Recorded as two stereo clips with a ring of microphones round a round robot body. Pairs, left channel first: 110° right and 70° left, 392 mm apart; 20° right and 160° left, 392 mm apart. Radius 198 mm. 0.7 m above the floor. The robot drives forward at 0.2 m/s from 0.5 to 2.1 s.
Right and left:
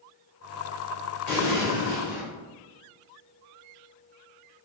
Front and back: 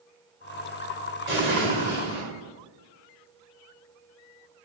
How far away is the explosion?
About 1.9 m.